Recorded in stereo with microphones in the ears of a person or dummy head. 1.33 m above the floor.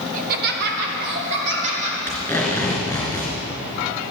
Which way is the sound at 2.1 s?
5° left (ahead or behind).